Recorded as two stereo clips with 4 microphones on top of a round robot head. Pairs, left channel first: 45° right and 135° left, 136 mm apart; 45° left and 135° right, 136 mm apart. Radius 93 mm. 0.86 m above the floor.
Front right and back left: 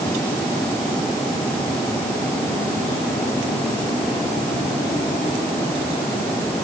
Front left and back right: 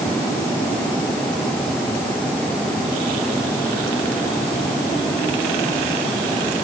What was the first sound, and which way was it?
Only background noise.